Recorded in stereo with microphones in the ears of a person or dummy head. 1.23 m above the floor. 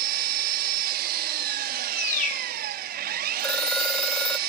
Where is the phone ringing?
10° left (ahead or behind), 0.5 m.